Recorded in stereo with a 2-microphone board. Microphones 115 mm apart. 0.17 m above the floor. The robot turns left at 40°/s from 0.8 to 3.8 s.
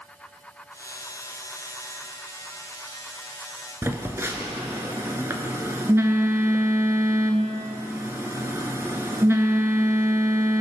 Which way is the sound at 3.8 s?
25° right (ahead or behind).